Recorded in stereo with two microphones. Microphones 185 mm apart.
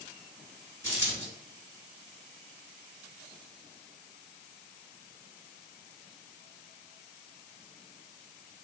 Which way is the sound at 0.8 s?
10° left (ahead or behind).